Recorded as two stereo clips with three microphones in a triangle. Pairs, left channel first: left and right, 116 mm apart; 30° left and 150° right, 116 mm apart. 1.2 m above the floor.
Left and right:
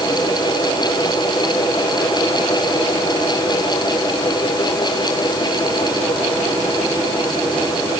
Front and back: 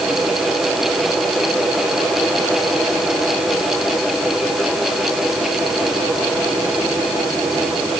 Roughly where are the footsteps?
I don't hear footsteps.